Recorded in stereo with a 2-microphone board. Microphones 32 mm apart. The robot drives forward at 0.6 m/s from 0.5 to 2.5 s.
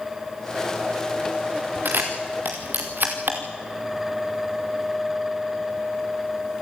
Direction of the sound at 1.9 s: 85° right.